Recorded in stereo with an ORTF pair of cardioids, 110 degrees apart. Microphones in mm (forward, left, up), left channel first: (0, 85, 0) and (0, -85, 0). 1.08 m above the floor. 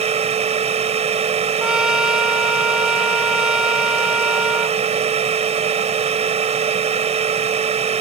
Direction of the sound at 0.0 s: 40° right.